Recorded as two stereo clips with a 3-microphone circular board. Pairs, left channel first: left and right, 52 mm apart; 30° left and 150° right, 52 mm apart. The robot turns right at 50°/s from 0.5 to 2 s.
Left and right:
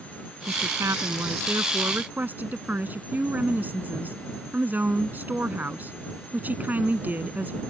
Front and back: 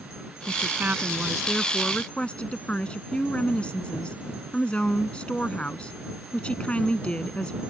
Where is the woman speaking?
110° right; by 7.6 s 35° right.